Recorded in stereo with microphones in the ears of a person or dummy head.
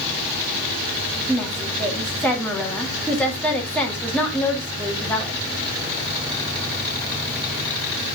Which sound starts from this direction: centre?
A woman speaking, at 1.3 s.